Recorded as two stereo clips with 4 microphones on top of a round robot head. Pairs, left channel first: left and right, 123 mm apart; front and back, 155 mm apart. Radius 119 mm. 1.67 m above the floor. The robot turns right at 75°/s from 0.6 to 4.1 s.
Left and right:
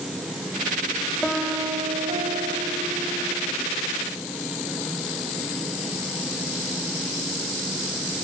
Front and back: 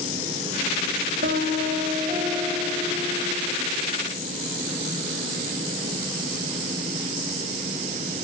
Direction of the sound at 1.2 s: 175° left.